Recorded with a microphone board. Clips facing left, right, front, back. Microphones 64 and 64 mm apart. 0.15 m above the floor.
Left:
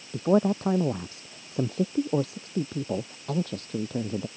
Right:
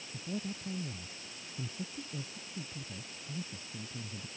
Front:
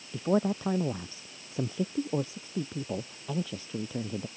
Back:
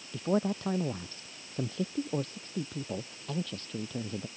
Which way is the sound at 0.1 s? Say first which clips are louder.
Left 18 dB, front 2 dB; 80° left.